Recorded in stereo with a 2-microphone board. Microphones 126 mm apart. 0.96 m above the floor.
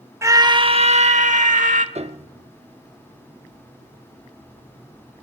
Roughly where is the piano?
Right.